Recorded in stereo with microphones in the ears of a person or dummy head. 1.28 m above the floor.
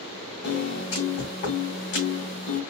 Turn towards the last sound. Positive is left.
turn(degrees=40)  # may be behind; listen again after turning